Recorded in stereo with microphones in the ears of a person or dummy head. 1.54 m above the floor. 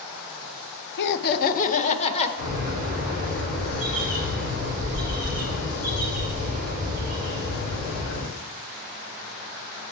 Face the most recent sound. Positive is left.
turn(degrees=70)  # may be behind; listen again after turning